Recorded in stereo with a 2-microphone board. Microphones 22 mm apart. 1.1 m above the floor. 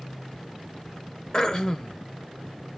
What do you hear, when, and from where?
1.3 s throat clearing: 30° left (ahead or behind), 0.6 m